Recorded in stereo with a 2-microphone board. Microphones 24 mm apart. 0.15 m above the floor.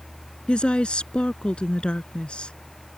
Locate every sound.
0.5 s a woman speaking: 45° left (ahead or behind)